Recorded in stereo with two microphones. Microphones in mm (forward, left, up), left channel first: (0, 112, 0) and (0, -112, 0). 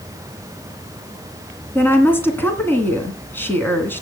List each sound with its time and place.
1.8 s a woman speaking: 10° left (ahead or behind), 2 m